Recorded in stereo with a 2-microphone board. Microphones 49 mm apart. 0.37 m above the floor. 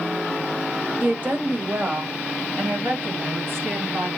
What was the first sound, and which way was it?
A woman speaking, 40° right (ahead or behind).